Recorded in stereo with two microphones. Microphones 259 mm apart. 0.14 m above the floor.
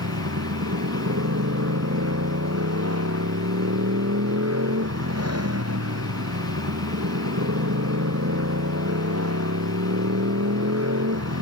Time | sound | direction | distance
0.0 | a motorcycle | 75° right (ahead or behind) | ?